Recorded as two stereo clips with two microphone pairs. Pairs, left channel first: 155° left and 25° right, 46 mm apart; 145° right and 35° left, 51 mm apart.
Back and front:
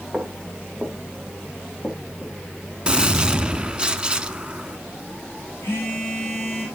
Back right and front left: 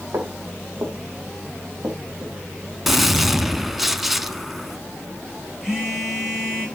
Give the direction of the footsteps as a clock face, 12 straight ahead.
10 o'clock.